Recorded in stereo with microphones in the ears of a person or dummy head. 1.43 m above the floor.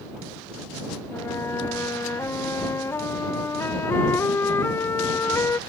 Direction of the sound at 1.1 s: 15° left (ahead or behind).